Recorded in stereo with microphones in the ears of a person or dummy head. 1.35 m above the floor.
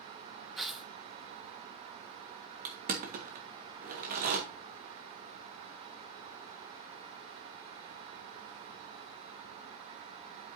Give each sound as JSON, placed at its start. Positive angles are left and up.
{"t": 0.6, "sound": "tearing paper", "side_deg": 0, "distance_m": 0.7}
{"t": 2.6, "sound": "crushing", "side_deg": -45, "distance_m": 1.6}